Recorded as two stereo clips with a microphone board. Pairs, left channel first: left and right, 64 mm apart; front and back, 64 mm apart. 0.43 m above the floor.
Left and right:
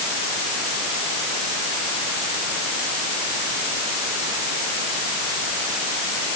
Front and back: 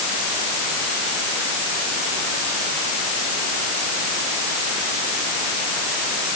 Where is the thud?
I don't hear a thud.